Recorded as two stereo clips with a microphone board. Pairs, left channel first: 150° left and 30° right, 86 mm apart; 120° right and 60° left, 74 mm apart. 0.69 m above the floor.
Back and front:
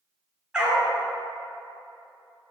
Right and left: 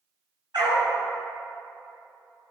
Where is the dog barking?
50° left, 3 m.